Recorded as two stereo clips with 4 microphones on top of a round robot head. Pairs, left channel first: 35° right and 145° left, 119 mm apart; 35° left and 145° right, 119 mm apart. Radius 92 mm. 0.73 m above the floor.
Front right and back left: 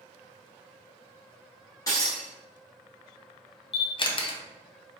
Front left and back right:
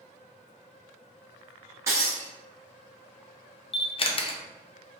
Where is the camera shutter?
5° left, 0.5 m.